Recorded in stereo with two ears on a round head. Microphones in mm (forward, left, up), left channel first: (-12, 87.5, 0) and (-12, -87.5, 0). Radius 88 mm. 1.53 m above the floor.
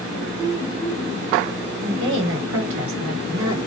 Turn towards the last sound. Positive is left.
turn(degrees=-65)  # may be behind; listen again after turning